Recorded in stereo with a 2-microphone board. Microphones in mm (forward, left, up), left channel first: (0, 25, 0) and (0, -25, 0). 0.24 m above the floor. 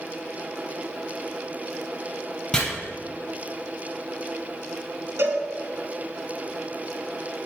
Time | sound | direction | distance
2.5 | chopping | 15° left (ahead or behind) | 2.5 m
5.2 | a cowbell | 60° right (ahead or behind) | 0.9 m